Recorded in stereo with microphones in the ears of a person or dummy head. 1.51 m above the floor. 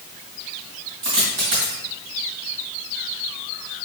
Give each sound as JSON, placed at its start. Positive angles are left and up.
{"t": 1.0, "sound": "a dropped coin", "side_deg": -35, "distance_m": 1.9}